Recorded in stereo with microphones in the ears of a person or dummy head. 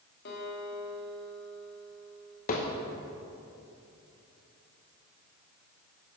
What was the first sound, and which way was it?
A guitar, 60° left (ahead or behind).